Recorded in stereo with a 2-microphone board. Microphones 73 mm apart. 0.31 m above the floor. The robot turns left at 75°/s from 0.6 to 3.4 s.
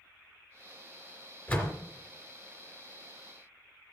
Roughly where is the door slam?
Left.